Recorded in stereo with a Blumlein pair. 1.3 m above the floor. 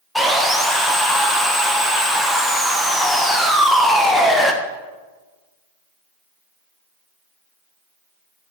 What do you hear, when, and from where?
0.1 s sawing: straight ahead, 1.0 m